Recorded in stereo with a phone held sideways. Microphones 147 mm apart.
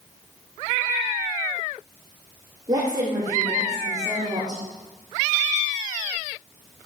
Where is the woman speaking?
30° right (ahead or behind), 3 m.